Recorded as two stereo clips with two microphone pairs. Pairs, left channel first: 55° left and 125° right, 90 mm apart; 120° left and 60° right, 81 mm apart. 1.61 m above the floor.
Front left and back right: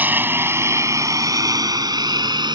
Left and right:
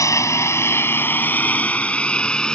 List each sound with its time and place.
0.0 s a lawn mower: 165° left; by 2.6 s 160° right